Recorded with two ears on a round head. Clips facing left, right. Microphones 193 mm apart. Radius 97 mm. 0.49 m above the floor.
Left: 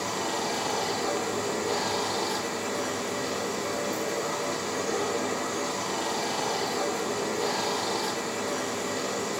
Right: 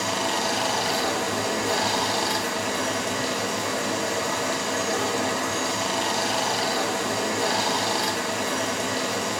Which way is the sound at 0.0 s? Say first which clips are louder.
Right 3 dB; 70° right (ahead or behind).